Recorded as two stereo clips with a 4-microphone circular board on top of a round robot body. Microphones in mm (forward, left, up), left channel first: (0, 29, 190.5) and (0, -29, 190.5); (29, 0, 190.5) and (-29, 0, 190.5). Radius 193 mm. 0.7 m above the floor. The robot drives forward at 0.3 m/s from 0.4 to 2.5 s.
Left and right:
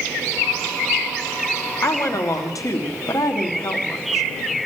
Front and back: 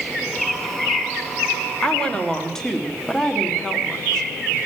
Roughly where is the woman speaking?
Left.